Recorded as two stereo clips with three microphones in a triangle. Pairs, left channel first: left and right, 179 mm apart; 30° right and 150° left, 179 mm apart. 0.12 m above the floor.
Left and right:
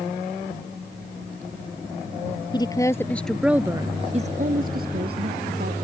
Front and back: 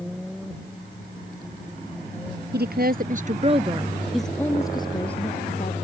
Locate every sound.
2.5 s a woman speaking: 155° left; by 5.7 s 75° right